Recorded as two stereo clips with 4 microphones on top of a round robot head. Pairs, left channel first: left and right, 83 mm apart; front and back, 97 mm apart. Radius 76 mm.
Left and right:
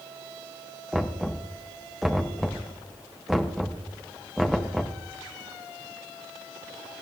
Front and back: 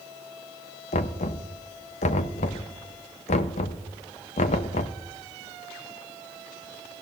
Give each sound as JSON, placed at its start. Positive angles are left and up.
{"t": 0.9, "sound": "knocking", "azimuth_deg": 0, "distance_m": 0.7}